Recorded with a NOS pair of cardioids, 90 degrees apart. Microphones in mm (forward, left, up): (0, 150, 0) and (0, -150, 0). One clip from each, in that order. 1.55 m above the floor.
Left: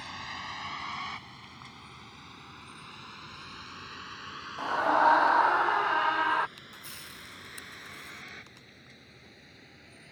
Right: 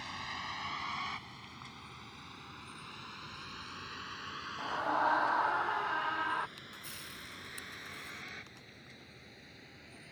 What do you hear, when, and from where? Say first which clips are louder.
0.0 s a vehicle: left 2 dB; 20° left; by 10.1 s 15° left
4.6 s a scream: left 8 dB; 45° left
6.6 s a camera shutter: left 2 dB; 25° left